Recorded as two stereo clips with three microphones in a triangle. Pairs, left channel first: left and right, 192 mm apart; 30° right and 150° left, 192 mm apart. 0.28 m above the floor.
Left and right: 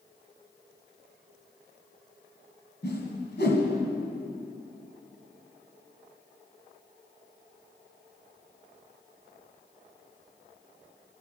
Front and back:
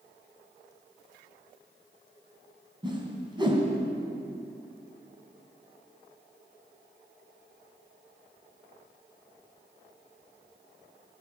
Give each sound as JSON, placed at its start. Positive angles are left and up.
{"t": 2.8, "sound": "a whoosh", "azimuth_deg": 90, "distance_m": 2.0}